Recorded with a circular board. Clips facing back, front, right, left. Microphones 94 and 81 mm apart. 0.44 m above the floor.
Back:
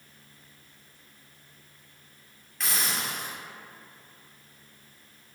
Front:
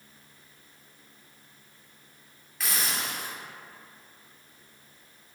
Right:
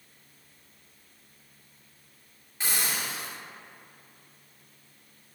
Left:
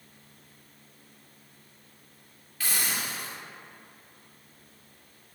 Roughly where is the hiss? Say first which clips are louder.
Even, even; right.